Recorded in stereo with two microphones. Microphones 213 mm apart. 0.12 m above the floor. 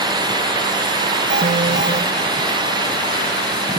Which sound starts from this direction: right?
An alarm, at 1.3 s.